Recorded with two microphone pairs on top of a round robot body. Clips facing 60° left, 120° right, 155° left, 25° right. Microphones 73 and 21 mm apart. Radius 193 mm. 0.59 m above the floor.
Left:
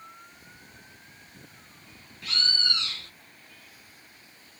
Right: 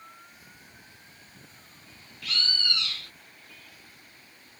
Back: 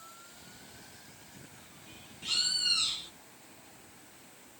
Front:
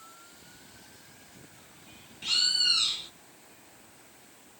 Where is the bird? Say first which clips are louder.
Left 1 dB, front 5 dB; 30° left, 1.0 m.